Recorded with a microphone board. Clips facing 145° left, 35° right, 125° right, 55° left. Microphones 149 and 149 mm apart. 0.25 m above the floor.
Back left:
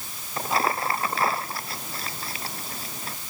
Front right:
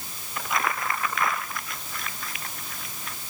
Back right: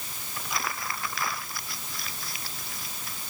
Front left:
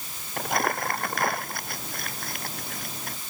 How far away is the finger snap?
I don't hear a finger snap.